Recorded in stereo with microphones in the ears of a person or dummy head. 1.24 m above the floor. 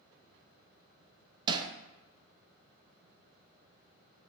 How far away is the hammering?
About 0.5 m.